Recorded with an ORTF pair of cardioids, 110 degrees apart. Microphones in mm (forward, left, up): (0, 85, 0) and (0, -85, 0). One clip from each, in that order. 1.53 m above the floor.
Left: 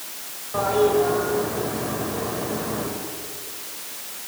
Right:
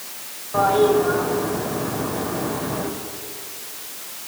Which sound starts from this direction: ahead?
A toilet flushing, at 0.5 s.